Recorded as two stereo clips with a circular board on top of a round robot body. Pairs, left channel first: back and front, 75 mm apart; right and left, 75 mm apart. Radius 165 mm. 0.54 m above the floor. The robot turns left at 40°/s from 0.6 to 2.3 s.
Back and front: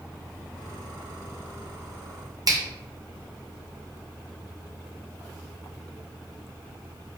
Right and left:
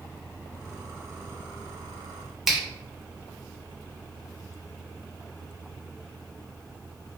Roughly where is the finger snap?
Ahead.